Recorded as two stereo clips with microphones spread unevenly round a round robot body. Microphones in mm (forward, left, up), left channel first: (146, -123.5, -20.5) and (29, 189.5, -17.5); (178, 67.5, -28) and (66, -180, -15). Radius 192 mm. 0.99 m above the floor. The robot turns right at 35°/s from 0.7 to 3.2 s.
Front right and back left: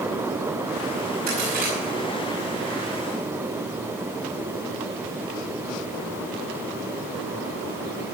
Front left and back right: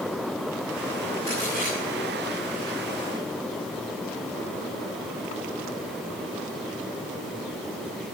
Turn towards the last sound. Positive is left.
turn(degrees=-125)